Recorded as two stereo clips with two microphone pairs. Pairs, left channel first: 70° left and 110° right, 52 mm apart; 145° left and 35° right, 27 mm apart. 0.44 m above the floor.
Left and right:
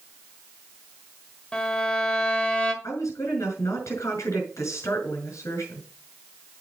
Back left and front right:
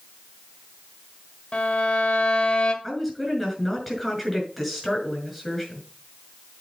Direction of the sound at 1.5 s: 140° left.